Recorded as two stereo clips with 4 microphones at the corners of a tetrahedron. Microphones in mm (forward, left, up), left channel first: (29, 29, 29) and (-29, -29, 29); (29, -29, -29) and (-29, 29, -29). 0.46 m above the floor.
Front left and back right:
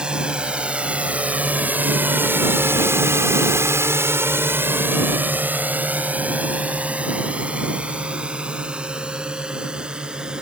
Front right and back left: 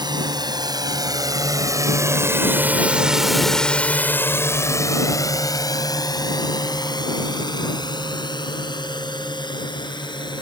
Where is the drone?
145° left; by 10.4 s 55° right.